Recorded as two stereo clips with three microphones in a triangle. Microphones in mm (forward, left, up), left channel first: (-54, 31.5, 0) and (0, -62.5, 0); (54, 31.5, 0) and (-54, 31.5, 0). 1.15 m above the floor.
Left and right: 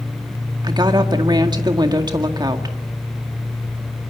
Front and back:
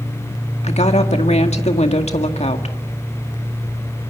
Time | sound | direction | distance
0.6 | a woman speaking | 10° right | 1.9 m